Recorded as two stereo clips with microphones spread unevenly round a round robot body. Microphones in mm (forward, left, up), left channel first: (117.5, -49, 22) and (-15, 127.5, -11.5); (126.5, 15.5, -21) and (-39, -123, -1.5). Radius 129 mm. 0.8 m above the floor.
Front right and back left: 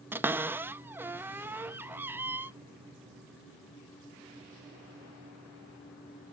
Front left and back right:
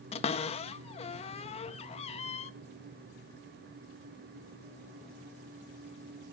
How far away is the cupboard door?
About 0.5 m.